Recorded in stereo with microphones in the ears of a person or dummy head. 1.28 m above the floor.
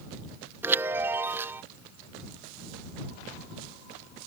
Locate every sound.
0.6 s a chime: 10° right (ahead or behind)